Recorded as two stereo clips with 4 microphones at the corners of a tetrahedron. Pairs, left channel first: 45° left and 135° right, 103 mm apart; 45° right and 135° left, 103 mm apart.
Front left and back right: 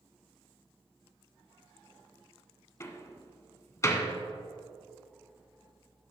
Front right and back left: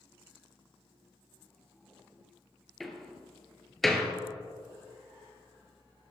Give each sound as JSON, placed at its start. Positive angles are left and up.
{"t": 2.8, "sound": "a door slam", "azimuth_deg": 40, "distance_m": 1.1}